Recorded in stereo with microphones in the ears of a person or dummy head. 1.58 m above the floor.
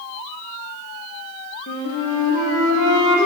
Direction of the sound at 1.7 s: 75° left (ahead or behind).